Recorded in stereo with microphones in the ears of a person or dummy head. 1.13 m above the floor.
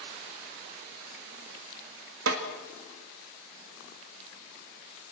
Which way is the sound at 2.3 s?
75° right (ahead or behind).